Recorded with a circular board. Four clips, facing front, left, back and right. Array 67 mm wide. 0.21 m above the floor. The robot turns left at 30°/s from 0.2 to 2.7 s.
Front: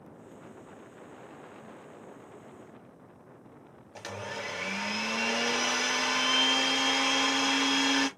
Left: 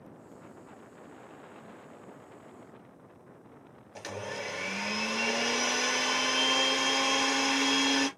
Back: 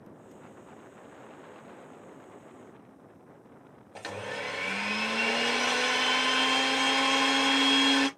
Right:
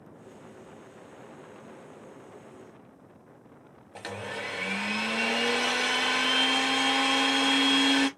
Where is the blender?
120° right, 1.2 m.